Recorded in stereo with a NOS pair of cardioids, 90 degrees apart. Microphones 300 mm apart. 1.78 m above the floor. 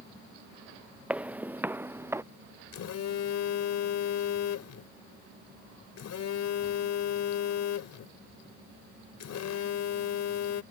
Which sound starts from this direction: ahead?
Footsteps, at 1.1 s.